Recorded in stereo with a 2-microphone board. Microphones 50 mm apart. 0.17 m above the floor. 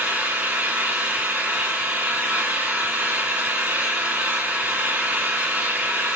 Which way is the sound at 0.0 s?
30° right (ahead or behind).